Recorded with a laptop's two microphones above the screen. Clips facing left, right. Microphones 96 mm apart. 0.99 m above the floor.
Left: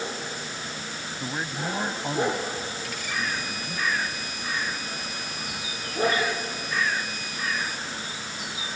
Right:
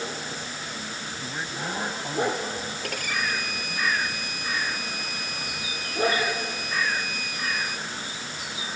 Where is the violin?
60° right (ahead or behind).